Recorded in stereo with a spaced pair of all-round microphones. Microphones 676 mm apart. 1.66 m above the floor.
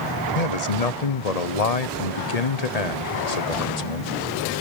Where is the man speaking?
70° left (ahead or behind), 1.1 m.